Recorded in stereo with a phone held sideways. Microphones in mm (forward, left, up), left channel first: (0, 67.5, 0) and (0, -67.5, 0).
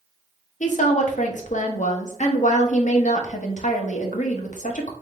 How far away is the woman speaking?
About 0.8 m.